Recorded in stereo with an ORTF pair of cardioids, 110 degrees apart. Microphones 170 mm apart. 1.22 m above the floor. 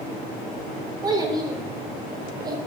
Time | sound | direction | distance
1.0 | a child speaking | 25° right | 3 m